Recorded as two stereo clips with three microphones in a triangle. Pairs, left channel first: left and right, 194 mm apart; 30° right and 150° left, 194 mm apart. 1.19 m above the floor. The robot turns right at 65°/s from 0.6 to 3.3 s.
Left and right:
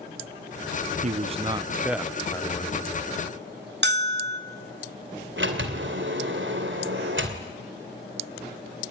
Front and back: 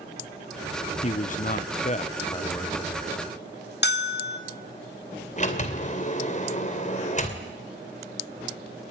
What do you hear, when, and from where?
1.0 s a man speaking: 65° right, 0.8 m; by 2.9 s 55° left, 0.8 m
3.8 s a bell: 60° right, 2.5 m
5.4 s a sliding door: 80° right, 2.5 m